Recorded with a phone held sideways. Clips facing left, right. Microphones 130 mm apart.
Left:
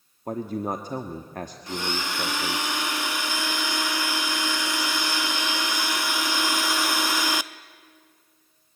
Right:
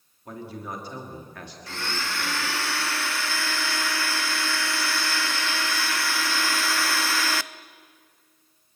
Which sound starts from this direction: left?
A man speaking, at 0.3 s.